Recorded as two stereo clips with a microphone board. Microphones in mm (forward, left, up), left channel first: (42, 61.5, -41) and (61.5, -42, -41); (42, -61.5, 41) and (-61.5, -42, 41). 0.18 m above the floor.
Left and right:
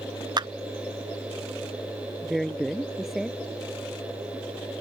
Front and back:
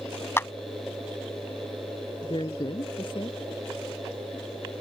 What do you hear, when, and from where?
0.4 s a clap: 70° right
2.2 s a woman speaking: 10° left